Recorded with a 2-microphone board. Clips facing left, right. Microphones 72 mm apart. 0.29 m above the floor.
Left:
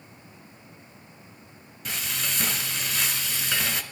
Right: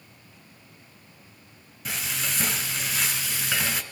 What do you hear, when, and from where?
1.9 s frying: 5° right (ahead or behind), 2 m